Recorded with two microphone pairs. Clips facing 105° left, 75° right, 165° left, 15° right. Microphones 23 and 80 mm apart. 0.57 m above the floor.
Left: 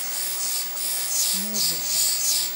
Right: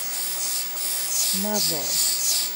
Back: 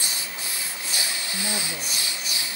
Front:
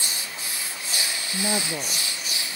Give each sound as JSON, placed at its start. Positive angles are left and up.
{"t": 1.3, "sound": "a woman speaking", "azimuth_deg": -80}